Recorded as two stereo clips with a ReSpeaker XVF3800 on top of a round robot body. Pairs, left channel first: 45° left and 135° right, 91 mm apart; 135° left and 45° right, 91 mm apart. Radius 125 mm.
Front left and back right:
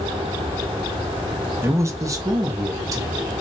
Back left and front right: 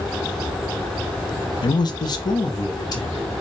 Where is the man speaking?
165° left, 0.6 m; by 3.3 s straight behind, 2 m.